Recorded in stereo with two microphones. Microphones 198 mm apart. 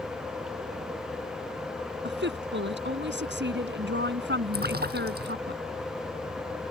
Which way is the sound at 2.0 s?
65° right (ahead or behind).